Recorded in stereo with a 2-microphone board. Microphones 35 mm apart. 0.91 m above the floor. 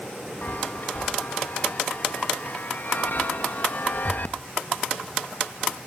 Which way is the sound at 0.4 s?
55° left (ahead or behind).